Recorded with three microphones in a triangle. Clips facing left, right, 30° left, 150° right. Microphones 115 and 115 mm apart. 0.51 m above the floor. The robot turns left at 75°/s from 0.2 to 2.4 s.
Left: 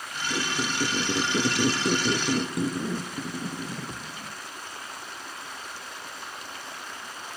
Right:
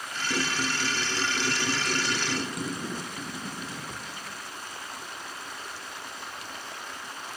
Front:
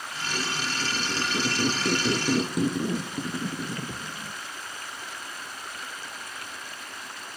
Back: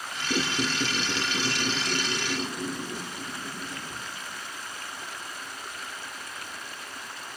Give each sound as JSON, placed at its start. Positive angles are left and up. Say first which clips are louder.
{"t": 0.3, "sound": "a squeak", "louder": "even, back 4 dB", "azimuth_deg": -175, "distance_m": 0.6}